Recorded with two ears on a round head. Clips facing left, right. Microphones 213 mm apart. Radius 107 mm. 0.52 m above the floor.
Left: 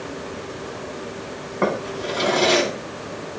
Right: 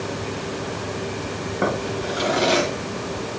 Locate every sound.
1.6 s a drawer: 5° right (ahead or behind), 3 m